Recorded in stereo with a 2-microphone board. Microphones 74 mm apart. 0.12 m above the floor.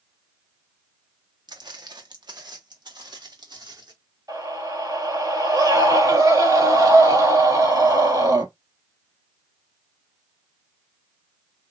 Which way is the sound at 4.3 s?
60° right (ahead or behind).